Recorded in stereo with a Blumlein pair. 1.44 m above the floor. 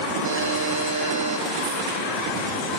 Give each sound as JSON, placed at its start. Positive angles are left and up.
{"t": 0.2, "sound": "a buzzer", "azimuth_deg": -65, "distance_m": 1.8}